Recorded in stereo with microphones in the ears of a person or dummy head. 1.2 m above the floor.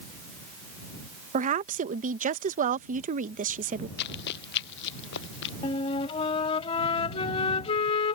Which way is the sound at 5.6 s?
30° left (ahead or behind).